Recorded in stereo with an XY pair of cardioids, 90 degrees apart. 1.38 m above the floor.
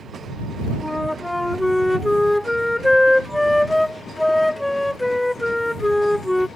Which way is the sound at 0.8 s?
10° left.